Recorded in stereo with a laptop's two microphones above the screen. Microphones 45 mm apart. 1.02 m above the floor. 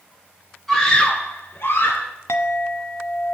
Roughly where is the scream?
Centre.